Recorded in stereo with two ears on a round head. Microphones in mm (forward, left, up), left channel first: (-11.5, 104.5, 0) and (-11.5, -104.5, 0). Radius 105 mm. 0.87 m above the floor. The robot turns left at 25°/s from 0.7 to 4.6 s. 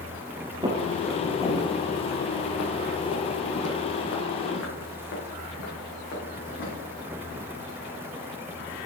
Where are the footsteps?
20° right (ahead or behind), 1.3 m; by 6.7 s 45° left (ahead or behind), 4.5 m.